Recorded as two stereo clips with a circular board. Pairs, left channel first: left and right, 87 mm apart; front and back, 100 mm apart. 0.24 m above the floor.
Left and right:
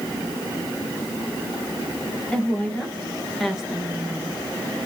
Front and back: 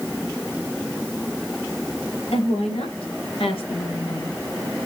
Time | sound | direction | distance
2.3 | a woman speaking | 10° left | 4.5 m